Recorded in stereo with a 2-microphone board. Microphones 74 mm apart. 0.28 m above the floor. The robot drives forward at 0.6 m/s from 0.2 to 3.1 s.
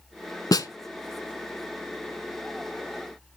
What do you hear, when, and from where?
0.5 s a snare drum: 55° left (ahead or behind), 0.7 m; by 0.7 s 65° left (ahead or behind), 0.7 m